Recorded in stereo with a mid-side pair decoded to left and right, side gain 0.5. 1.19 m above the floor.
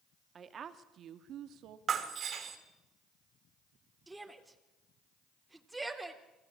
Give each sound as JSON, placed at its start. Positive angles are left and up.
{"t": 0.3, "sound": "a woman speaking", "azimuth_deg": -45, "distance_m": 2.5}
{"t": 1.9, "sound": "breaking glass", "azimuth_deg": -50, "distance_m": 3.5}
{"t": 4.1, "sound": "a shout", "azimuth_deg": -15, "distance_m": 3.0}